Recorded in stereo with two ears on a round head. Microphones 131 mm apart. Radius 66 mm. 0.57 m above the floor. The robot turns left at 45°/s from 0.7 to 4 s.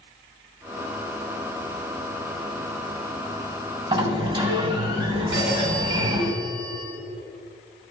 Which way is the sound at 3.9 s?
40° right (ahead or behind).